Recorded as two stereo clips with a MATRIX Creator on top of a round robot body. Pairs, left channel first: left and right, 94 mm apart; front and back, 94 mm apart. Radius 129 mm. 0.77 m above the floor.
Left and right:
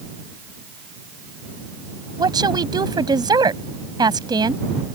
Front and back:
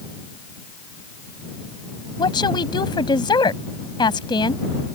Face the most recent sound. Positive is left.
turn(degrees=-45)